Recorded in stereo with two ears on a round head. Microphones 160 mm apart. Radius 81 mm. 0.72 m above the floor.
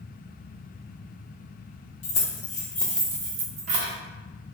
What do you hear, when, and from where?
2.0 s keys jangling: 45° left (ahead or behind), 0.9 m; by 3.9 s 50° right (ahead or behind), 1.0 m